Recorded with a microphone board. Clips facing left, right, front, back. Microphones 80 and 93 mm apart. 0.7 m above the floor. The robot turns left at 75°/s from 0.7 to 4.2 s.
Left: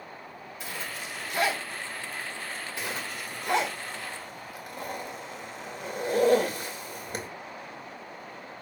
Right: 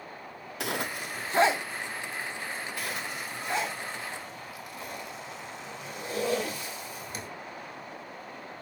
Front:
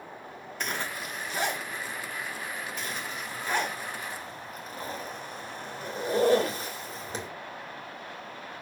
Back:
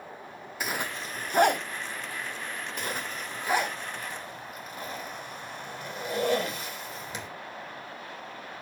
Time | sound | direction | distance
0.6 | a zipper | 100° right | 0.6 m
2.8 | a zipper | 160° left | 1.9 m